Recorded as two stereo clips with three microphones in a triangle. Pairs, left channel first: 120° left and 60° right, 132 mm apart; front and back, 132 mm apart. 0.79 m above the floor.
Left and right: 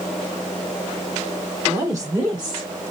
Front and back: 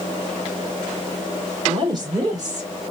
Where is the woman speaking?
130° right, 1.6 m; by 2.7 s 115° right, 3 m.